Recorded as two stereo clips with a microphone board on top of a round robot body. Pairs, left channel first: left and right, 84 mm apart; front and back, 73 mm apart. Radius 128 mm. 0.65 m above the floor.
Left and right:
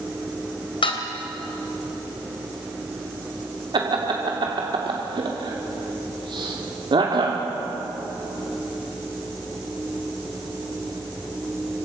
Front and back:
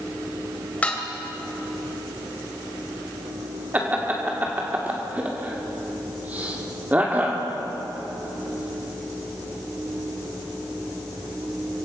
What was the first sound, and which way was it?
Dishes clattering, 75° left.